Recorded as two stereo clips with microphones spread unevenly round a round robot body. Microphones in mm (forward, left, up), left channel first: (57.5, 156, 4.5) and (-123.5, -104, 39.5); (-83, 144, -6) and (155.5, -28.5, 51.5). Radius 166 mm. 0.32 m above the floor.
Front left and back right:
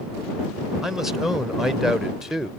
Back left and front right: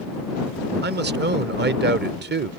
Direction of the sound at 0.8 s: 20° right.